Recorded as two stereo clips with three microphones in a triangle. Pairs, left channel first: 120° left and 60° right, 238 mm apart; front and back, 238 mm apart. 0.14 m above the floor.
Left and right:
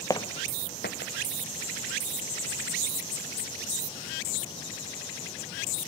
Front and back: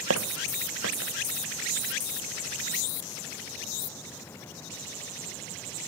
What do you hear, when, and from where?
0.1 s footsteps: 165° right, 0.9 m; by 1.1 s 160° left, 1.6 m